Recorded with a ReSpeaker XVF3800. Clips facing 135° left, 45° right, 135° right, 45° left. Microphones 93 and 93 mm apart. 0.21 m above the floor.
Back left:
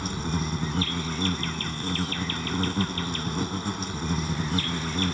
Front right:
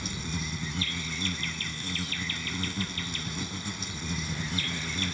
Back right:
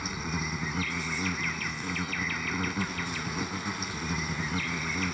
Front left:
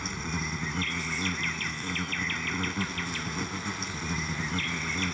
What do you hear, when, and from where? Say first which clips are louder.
0.0 s an insect: back left 6 dB, even; 140° left